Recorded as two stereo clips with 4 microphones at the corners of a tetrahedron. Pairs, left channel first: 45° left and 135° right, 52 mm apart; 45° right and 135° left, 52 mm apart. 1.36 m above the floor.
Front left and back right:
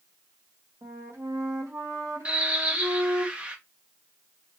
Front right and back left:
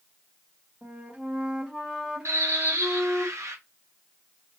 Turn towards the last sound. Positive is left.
turn(degrees=155)